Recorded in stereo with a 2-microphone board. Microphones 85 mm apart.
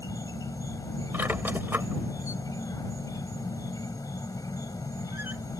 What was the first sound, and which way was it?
An insect, 50° left (ahead or behind).